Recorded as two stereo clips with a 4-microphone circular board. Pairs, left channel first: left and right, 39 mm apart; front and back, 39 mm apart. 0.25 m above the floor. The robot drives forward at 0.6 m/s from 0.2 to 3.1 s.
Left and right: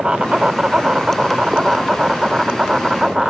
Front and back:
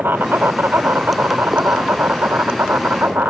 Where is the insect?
155° right; by 3.3 s 165° right.